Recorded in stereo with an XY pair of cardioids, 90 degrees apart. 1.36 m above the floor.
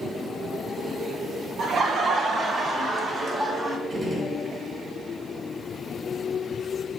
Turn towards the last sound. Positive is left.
turn(degrees=-20)